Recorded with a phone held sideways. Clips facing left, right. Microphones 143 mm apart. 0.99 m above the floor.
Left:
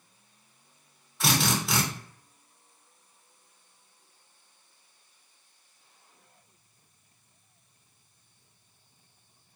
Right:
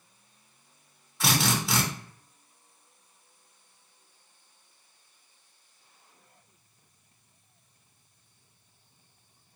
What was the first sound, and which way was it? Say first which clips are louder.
A drill: even; centre (ahead or behind).